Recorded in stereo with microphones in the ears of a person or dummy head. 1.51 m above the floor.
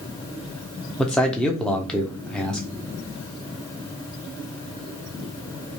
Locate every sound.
1.0 s a man speaking: 5° left (ahead or behind), 0.5 m